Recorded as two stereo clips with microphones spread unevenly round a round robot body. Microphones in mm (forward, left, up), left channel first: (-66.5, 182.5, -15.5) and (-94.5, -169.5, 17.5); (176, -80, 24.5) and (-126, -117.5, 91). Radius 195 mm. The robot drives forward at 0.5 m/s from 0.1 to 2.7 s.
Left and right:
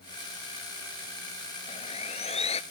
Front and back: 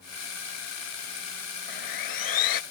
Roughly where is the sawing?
Ahead.